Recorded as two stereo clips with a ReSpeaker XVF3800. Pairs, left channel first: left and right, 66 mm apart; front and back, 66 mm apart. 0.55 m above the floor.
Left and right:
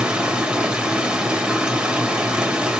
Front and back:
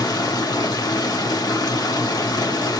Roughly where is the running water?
Ahead.